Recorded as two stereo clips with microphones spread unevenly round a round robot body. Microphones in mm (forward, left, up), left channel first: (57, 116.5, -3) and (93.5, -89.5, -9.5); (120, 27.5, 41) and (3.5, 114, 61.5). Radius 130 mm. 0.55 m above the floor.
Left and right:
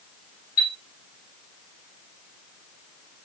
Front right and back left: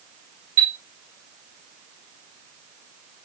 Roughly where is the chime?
Behind left.